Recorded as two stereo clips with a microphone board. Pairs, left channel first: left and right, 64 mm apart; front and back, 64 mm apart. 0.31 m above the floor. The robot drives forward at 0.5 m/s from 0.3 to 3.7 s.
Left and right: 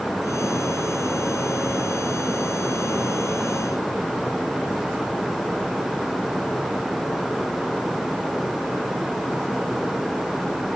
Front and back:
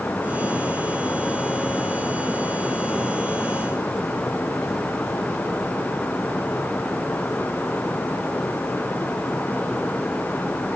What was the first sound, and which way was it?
Only background noise.